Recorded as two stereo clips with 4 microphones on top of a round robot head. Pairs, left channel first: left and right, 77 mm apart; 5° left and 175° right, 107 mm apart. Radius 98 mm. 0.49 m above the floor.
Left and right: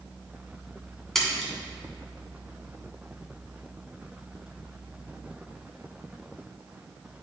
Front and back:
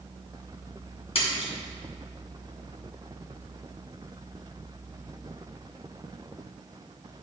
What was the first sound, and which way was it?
A splash, 5° left.